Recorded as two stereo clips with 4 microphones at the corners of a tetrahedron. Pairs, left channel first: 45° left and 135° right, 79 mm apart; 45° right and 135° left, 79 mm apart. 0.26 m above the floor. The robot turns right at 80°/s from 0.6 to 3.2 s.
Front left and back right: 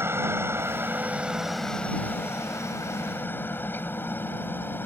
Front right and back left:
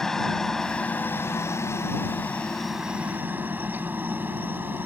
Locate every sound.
0.0 s a helicopter: 125° right; by 4.9 s 90° left